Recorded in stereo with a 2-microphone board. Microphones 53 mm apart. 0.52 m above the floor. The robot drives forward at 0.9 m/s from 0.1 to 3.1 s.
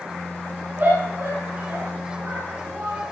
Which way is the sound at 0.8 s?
45° right (ahead or behind).